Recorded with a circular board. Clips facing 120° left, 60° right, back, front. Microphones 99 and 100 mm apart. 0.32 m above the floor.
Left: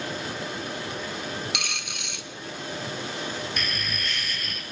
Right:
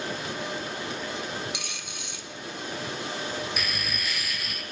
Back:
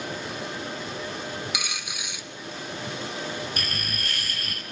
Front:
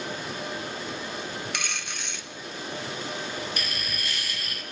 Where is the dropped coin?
100° left, 1.3 m.